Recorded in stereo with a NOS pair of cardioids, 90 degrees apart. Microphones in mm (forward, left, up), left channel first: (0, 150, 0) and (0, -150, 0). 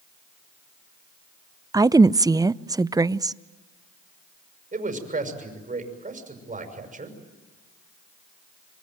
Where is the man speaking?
25° right, 6.5 m.